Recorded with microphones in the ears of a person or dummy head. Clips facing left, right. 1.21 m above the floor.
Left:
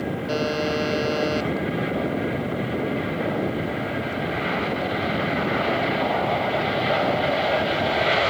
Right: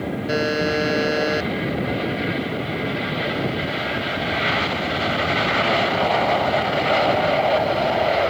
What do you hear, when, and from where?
0.3 s a buzzer: 20° right (ahead or behind)